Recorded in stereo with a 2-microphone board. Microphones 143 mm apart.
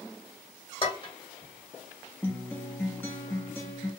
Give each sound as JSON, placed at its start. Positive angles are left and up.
{"t": 0.8, "sound": "dishes clattering", "side_deg": 35, "distance_m": 1.4}
{"t": 2.2, "sound": "a guitar", "side_deg": 15, "distance_m": 1.2}